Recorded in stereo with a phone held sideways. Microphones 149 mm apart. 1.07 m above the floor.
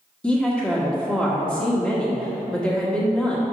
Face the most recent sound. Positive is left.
turn(degrees=5)  # may be behind; listen again after turning